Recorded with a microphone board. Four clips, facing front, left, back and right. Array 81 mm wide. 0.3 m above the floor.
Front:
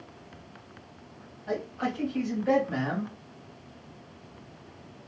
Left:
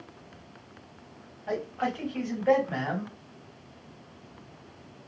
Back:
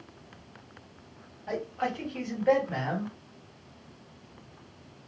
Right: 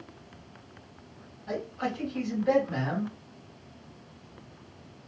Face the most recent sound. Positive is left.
turn(degrees=110)